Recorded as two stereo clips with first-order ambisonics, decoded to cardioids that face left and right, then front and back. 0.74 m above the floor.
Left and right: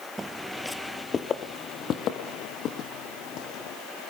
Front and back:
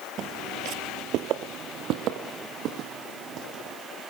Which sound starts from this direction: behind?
Footsteps, at 0.2 s.